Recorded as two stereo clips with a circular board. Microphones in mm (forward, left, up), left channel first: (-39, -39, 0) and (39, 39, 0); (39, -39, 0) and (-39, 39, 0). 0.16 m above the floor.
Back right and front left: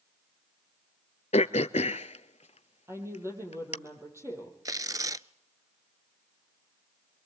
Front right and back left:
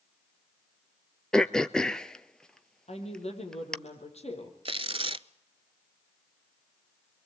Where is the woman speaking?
20° right, 6 m.